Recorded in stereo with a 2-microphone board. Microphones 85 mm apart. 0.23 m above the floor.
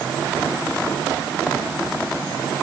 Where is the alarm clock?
No alarm clock in this recording.